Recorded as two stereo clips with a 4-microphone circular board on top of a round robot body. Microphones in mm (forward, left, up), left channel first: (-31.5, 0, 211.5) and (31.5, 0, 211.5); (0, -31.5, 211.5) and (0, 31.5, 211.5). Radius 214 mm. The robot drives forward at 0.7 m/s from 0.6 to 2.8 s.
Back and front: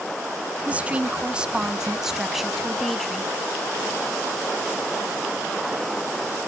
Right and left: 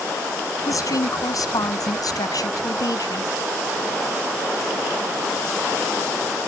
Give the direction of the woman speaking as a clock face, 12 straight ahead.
2 o'clock.